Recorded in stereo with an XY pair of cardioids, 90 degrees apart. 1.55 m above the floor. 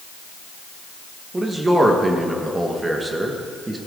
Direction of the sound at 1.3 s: 25° right.